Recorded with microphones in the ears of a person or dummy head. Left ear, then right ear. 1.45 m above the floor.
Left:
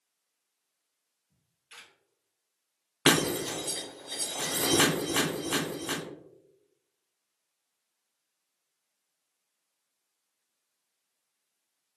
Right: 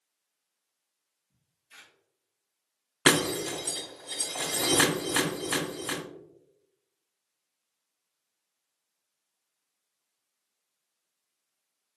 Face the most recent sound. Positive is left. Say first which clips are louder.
# right 1 dB
turn(degrees=-15)  # may be behind; listen again after turning